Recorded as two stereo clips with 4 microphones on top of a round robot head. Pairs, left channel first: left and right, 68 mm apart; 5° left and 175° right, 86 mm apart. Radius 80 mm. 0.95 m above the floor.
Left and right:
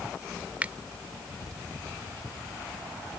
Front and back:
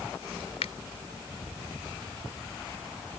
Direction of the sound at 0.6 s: 20° right.